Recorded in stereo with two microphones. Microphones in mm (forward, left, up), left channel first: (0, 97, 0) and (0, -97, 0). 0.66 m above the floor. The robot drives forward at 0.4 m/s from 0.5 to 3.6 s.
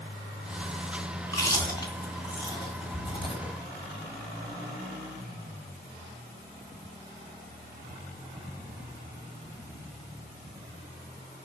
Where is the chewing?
20° left (ahead or behind), 2.5 m; by 3.5 s 25° left (ahead or behind), 1.7 m.